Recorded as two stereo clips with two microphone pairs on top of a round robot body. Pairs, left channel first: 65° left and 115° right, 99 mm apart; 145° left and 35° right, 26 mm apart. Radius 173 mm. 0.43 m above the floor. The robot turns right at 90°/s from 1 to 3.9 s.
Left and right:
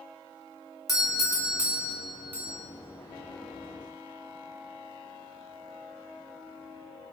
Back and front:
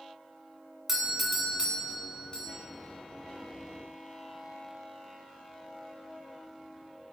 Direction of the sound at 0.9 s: 50° left.